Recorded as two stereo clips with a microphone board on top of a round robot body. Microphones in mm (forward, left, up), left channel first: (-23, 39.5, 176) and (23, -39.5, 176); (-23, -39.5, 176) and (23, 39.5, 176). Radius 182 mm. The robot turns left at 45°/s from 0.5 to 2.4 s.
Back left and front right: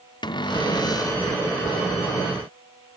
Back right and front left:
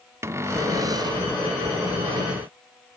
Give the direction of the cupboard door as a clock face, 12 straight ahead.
8 o'clock.